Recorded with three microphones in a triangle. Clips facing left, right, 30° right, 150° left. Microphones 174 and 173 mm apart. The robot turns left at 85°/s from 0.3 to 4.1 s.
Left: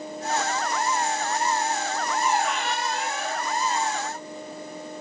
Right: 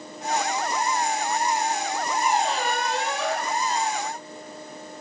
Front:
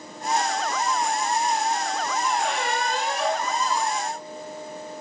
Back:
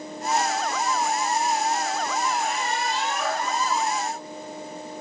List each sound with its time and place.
2.2 s a squeak: 5° right, 0.8 m; by 4.0 s 160° right, 0.8 m